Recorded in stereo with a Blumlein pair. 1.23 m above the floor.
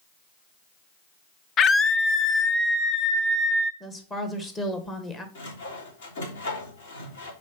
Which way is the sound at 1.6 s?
25° left.